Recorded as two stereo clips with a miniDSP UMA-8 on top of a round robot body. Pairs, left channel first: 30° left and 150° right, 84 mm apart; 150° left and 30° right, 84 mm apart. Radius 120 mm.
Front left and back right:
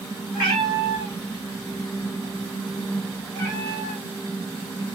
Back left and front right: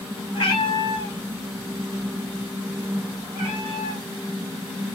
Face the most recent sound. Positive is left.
turn(degrees=-45)